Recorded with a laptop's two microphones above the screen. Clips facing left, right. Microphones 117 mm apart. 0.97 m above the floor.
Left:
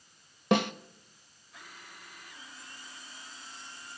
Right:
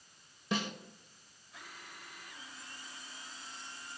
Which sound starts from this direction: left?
A snare drum, at 0.5 s.